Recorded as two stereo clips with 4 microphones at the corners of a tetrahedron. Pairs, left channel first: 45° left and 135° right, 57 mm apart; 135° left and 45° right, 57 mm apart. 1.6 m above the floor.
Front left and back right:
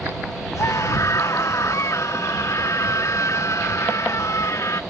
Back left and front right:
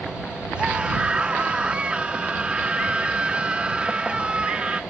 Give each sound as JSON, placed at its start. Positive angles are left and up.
{"t": 0.6, "sound": "a scream", "azimuth_deg": 25}